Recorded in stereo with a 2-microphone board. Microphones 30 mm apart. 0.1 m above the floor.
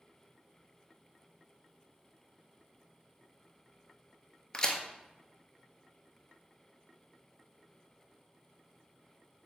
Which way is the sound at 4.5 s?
25° left (ahead or behind).